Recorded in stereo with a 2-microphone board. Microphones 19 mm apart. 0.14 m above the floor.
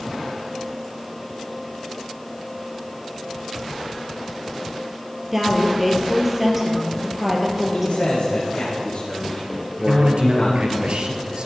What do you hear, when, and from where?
5.3 s a woman speaking: 15° right (ahead or behind), 3.5 m
7.7 s a man speaking: 80° left, 6.5 m
9.9 s a man speaking: 65° right (ahead or behind), 2.5 m